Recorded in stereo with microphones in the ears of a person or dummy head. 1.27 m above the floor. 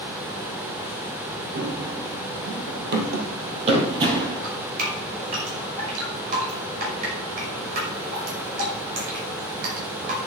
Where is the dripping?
50° right (ahead or behind), 5.5 m.